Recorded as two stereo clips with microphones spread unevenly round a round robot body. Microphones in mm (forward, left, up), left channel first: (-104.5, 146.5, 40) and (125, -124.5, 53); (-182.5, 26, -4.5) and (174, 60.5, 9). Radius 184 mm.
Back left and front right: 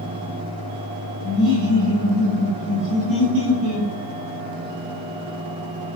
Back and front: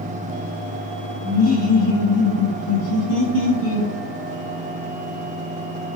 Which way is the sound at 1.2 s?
130° right.